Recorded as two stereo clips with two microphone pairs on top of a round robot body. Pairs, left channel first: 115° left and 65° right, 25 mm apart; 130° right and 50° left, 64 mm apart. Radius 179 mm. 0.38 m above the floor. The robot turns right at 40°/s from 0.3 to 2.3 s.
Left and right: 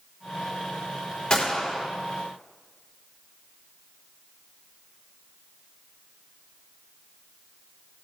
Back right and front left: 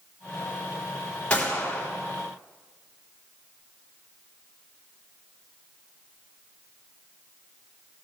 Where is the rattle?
No rattle in this recording.